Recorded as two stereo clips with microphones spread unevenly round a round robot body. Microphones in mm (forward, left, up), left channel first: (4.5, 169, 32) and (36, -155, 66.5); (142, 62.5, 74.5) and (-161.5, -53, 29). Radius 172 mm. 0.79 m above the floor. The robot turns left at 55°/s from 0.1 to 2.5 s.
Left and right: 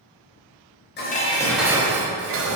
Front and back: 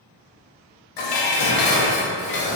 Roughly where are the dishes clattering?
Ahead left.